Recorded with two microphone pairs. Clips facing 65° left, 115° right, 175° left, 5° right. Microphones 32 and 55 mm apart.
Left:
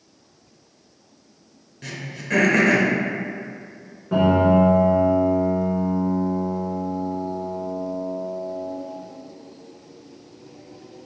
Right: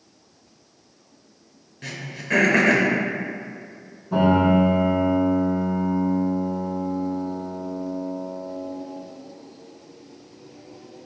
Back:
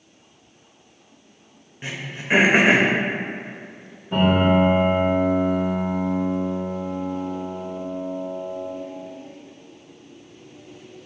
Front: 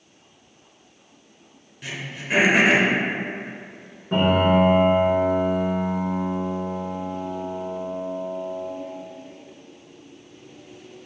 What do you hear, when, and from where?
1.8 s throat clearing: 160° left, 0.5 m
4.1 s a piano: 40° left, 1.9 m